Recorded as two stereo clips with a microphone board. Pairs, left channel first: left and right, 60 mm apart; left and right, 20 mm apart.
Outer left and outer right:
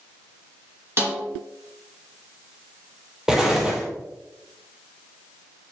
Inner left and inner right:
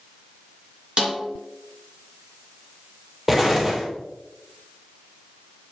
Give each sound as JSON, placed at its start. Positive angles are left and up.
{"t": 1.0, "sound": "a snare drum", "side_deg": -45, "distance_m": 3.0}
{"t": 3.3, "sound": "an explosion", "side_deg": -10, "distance_m": 1.7}